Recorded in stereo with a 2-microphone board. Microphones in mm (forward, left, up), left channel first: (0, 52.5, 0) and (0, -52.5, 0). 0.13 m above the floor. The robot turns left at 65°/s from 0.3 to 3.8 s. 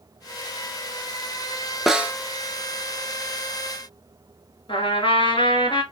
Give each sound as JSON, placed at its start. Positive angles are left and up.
{"t": 1.9, "sound": "a snare drum", "side_deg": 0, "distance_m": 0.6}
{"t": 4.7, "sound": "a trumpet", "side_deg": 55, "distance_m": 1.0}